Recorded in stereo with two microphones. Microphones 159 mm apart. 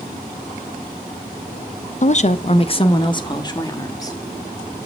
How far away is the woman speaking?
About 0.5 m.